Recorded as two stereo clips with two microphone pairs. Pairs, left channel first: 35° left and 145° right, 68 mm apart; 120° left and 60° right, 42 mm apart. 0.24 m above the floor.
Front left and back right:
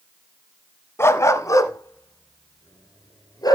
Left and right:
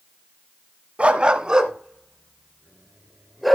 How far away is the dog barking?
About 0.8 m.